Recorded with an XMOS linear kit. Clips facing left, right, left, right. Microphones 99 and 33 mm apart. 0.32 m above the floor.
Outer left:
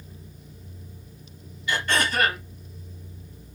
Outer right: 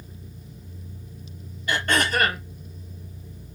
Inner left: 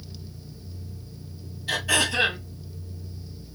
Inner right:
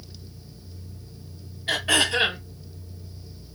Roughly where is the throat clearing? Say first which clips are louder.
Outer right 2 dB, inner right 2 dB; right.